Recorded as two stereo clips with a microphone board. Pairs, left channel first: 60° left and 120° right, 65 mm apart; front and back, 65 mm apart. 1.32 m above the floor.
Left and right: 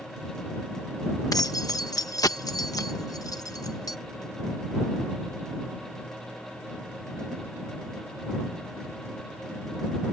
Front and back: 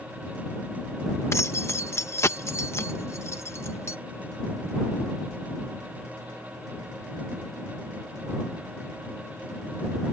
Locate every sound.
1.3 s keys jangling: 45° left